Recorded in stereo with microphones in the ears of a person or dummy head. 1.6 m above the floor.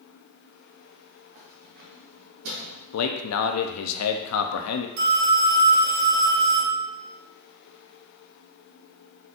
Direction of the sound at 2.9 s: 85° left.